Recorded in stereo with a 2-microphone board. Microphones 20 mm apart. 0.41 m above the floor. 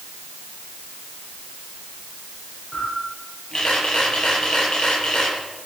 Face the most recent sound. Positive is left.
turn(degrees=35)  # may be behind; listen again after turning